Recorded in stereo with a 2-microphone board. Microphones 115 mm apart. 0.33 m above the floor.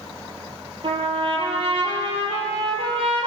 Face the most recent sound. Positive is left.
turn(degrees=-50)  # may be behind; listen again after turning